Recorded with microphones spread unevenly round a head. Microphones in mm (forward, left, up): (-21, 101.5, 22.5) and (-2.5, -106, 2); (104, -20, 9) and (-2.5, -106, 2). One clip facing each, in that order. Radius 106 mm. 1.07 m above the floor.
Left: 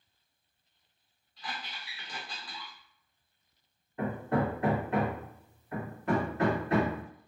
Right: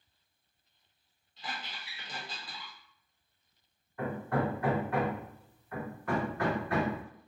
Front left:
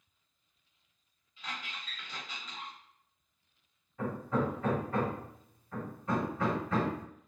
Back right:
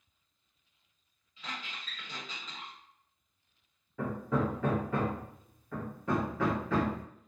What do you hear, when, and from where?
1.4 s a squeak: 155° right, 1.3 m
4.0 s hammering: 165° left, 0.7 m